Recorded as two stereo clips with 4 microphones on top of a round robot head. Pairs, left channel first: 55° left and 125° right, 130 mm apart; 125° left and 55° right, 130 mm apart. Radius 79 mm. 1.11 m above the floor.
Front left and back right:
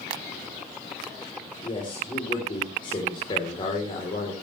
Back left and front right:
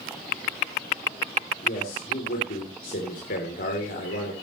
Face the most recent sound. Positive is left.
turn(degrees=110)